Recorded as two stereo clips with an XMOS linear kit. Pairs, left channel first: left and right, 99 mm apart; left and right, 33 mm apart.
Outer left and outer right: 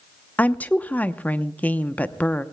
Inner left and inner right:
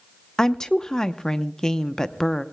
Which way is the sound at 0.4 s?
15° left (ahead or behind).